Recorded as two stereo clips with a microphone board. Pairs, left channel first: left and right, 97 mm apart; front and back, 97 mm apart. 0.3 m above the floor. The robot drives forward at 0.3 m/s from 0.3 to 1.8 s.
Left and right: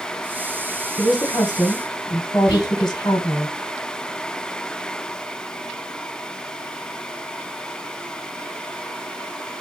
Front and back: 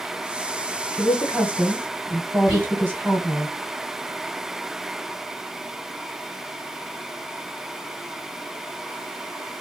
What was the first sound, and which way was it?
A woman speaking, 100° left.